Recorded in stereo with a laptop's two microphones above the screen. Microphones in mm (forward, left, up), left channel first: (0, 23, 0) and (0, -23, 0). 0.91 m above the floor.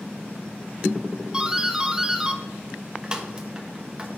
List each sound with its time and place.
1.3 s a doorbell: 15° right (ahead or behind), 1.2 m